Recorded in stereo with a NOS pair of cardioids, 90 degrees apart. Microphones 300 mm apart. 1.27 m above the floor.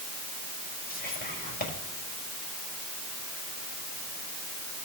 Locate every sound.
0.9 s whispering: 30° left, 6.5 m